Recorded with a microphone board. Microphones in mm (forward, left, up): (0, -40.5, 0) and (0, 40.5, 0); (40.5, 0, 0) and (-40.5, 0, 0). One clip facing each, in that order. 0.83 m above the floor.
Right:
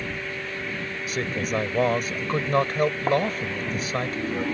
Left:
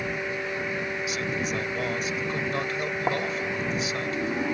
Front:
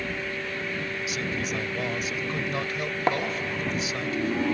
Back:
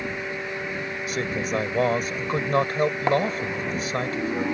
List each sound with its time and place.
1.1 s a man speaking: 135° right